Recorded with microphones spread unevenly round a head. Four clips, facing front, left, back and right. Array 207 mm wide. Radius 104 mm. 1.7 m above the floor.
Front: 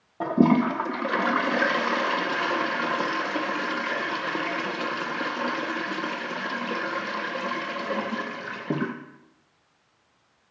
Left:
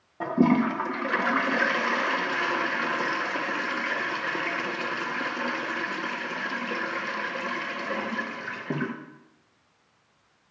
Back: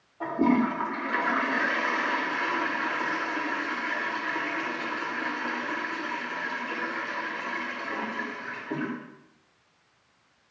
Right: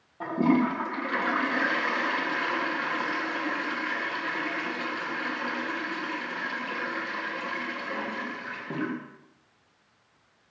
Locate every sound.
0.2 s a toilet flushing: 20° left, 1.8 m